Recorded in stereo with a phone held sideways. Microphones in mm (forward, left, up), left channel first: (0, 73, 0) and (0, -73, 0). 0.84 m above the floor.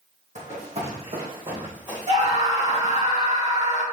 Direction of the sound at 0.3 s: 55° right (ahead or behind).